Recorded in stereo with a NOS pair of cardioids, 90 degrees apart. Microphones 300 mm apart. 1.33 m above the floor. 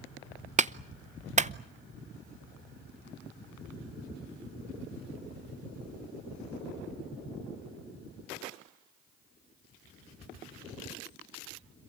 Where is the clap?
25° right, 0.8 m.